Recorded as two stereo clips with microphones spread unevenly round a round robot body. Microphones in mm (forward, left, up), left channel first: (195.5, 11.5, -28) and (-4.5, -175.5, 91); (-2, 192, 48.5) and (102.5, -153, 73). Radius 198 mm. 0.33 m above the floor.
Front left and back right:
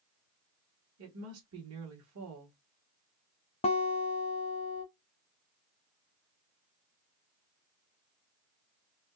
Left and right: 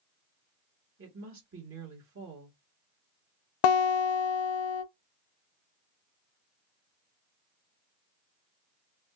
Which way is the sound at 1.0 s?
105° right.